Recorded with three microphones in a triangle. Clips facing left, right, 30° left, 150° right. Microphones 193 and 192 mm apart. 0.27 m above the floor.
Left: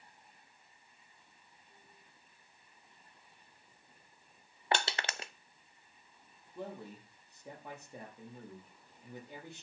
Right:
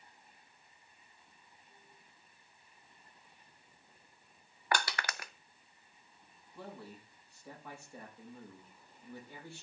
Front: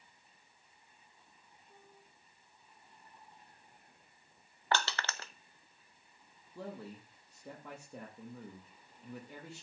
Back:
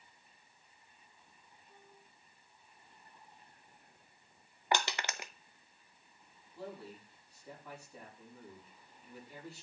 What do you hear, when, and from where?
4.7 s crushing: 145° left, 0.5 m
6.5 s a man speaking: 20° left, 5.5 m